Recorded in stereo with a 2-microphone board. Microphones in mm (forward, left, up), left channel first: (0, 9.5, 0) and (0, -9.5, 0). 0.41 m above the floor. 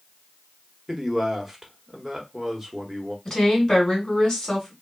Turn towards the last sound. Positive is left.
turn(degrees=40)  # may be behind; listen again after turning